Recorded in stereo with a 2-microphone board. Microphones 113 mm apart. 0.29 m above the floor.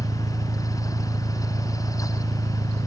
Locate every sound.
0.0 s an engine running: 80° right